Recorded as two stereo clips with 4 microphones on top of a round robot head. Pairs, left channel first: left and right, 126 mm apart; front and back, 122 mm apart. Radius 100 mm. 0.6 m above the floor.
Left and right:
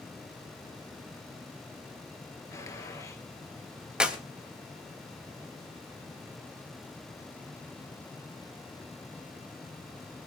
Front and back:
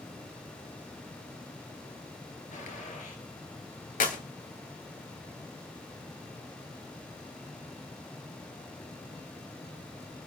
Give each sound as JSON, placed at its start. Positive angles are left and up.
{"t": 2.5, "sound": "a gunshot", "azimuth_deg": 25, "distance_m": 3.0}
{"t": 4.0, "sound": "a clap", "azimuth_deg": -5, "distance_m": 2.5}